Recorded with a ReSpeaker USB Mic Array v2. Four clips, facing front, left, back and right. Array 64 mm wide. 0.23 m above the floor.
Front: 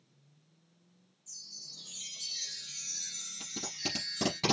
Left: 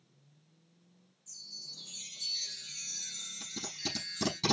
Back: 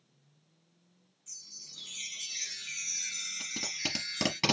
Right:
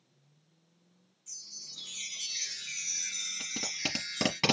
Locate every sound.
1.3 s a chime: 135° right, 1.7 m
3.4 s tape being pulled: 115° right, 3.5 m